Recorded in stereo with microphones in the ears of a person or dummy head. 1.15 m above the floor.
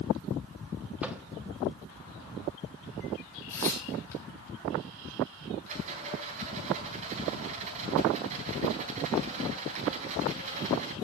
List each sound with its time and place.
1.0 s a microwave: 15° right (ahead or behind), 1.3 m
3.5 s tearing paper: 25° left (ahead or behind), 7 m
5.7 s a rattle: 30° right (ahead or behind), 4 m